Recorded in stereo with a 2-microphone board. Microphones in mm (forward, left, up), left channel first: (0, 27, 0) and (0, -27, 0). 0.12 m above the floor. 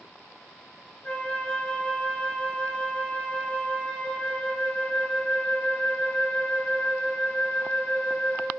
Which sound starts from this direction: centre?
A flute, at 1.0 s.